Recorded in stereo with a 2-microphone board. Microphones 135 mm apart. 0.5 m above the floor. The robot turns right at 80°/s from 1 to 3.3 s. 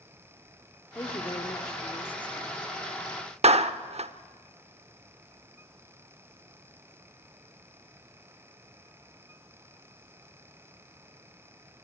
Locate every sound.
0.9 s a woman speaking: 25° left (ahead or behind), 1.2 m; by 2.6 s 5° right (ahead or behind), 1.2 m
3.4 s a clap: 50° right (ahead or behind), 0.7 m